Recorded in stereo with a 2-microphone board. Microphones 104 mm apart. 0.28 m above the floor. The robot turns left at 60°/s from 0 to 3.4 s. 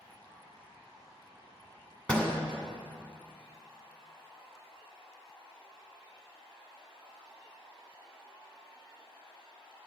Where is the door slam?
10° left (ahead or behind), 1.7 m; by 2.3 s 25° left (ahead or behind), 1.7 m.